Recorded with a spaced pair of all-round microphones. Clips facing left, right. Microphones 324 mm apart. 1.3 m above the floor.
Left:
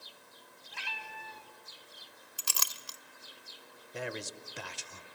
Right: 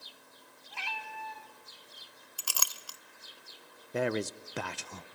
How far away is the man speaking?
About 0.6 m.